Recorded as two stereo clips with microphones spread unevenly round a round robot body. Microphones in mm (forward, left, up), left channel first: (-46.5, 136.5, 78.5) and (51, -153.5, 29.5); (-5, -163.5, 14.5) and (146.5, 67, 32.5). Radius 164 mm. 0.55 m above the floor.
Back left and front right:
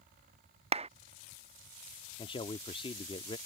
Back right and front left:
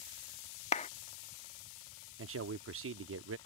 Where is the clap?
95° right.